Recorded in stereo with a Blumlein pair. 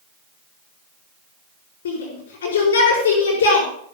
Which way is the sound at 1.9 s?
65° left.